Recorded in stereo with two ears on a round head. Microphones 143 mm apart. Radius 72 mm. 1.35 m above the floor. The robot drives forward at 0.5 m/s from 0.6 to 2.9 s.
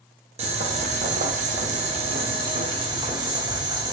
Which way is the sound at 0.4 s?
40° right (ahead or behind).